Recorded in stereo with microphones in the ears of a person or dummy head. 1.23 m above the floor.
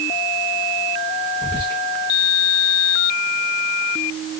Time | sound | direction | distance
1.4 | whispering | 15° left (ahead or behind) | 1.1 m